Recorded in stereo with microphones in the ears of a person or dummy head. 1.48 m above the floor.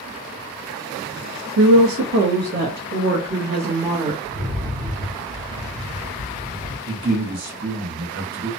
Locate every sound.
1.6 s a woman speaking: 75° right (ahead or behind), 0.5 m; by 4.1 s 25° right (ahead or behind), 1.5 m
4.2 s a rattle: 40° right (ahead or behind), 1.7 m
6.9 s a man speaking: 45° right (ahead or behind), 1.0 m